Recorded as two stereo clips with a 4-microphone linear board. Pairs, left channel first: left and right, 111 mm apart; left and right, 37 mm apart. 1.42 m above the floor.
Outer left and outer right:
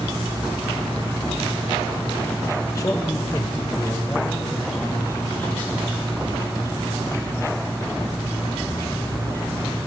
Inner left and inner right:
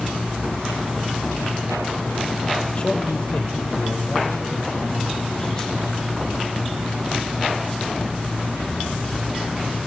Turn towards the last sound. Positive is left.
turn(degrees=20)  # may be behind; listen again after turning